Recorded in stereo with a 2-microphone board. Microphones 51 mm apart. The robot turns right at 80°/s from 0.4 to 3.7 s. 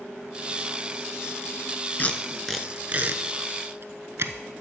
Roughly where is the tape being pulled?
Left.